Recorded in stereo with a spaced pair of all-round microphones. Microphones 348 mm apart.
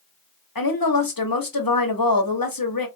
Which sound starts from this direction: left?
A woman speaking, at 0.6 s.